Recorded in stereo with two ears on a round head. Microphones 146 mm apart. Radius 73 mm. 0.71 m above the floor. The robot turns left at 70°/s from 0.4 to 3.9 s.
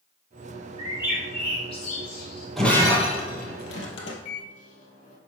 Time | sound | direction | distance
0.8 | a bird | 30° right (ahead or behind) | 4 m
2.6 | breaking glass | centre (ahead or behind) | 2 m
4.2 | a microwave | 45° left (ahead or behind) | 2.0 m